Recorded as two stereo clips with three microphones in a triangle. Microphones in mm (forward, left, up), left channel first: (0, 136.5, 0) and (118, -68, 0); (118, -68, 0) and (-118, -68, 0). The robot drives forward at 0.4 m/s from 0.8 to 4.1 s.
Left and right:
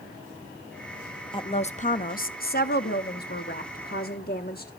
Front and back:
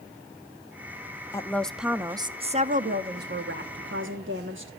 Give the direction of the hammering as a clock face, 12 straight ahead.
I don't hear hammering.